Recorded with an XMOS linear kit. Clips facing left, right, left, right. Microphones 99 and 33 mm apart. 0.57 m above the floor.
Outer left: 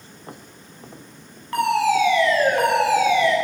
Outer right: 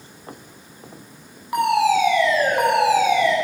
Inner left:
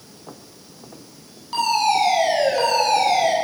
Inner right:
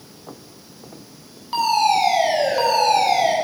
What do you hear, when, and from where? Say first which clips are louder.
1.5 s a fire alarm: outer right 1 dB, inner right 1 dB; 15° right (ahead or behind), 8 m